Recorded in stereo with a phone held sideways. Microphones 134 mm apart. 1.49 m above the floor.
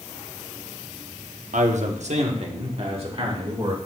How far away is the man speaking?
About 0.9 m.